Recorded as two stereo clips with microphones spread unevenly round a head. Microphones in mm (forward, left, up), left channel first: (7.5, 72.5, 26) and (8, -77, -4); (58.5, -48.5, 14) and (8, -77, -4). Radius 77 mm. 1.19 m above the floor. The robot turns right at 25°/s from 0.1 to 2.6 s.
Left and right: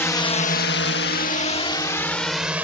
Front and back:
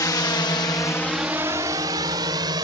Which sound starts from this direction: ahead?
A drone, at 0.0 s.